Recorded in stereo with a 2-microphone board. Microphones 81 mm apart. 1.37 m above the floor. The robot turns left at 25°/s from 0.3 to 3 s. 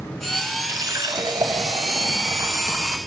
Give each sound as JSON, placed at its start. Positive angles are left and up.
{"t": 0.7, "sound": "a running tap", "azimuth_deg": -85, "distance_m": 0.7}